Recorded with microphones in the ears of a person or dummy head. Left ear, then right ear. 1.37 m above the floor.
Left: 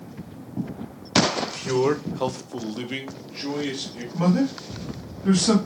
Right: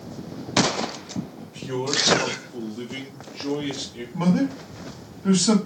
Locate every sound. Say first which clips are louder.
1.4 s a man speaking: left 7 dB; 55° left (ahead or behind), 1.0 m; by 4.0 s 10° left (ahead or behind), 1.5 m
4.1 s a man speaking: left 1 dB; 5° right (ahead or behind), 1.0 m